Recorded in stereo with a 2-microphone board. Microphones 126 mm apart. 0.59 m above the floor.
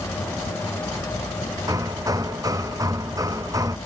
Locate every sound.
1.7 s hammering: 25° right (ahead or behind)